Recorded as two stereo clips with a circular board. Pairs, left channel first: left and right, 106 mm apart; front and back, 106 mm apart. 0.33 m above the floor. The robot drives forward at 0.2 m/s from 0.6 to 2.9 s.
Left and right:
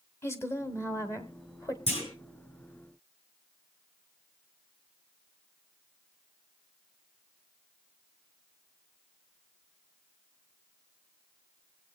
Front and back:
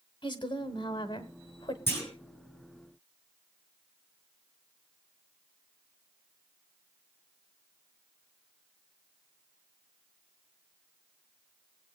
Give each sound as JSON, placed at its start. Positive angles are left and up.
{"t": 0.2, "sound": "a woman speaking", "azimuth_deg": 30, "distance_m": 1.7}
{"t": 1.9, "sound": "a clunk", "azimuth_deg": 70, "distance_m": 5.5}